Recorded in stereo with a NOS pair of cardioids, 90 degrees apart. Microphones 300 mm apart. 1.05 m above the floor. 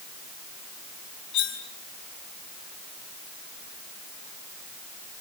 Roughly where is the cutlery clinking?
Ahead left.